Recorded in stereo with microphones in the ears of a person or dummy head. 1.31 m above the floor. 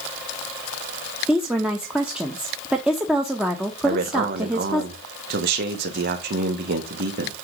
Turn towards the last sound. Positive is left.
turn(degrees=-60)  # may be behind; listen again after turning